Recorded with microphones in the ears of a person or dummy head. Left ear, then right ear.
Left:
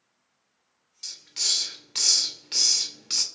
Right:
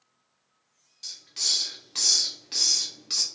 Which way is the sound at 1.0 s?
15° left (ahead or behind).